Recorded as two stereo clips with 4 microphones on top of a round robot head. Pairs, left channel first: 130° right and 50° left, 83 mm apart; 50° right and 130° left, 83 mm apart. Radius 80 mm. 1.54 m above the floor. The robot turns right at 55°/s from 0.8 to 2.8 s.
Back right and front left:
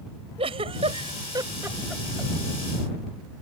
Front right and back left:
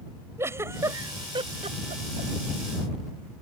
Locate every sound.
0.4 s a giggle: 70° left; by 2.3 s 150° left